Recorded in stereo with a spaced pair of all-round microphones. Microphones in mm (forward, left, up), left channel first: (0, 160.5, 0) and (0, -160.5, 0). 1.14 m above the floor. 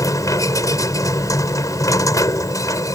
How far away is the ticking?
I don't hear ticking.